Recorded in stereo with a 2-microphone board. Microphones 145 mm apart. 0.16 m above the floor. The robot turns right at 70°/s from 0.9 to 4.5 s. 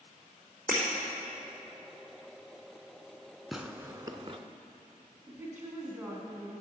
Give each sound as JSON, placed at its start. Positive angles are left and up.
{"t": 0.7, "sound": "breaking glass", "side_deg": -70, "distance_m": 4.0}
{"t": 3.5, "sound": "tearing paper", "side_deg": 0, "distance_m": 0.6}
{"t": 5.3, "sound": "a woman speaking", "side_deg": -15, "distance_m": 1.7}